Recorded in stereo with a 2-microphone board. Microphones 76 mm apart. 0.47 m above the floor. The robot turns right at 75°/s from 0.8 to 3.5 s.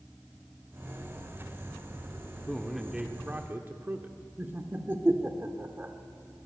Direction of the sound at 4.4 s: 25° right (ahead or behind).